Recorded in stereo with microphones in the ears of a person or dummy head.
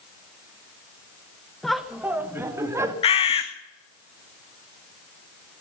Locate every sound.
1.6 s laughter: 5° left (ahead or behind), 1.0 m; by 2.9 s 15° right (ahead or behind), 2 m
3.0 s a bird: 35° left (ahead or behind), 1.6 m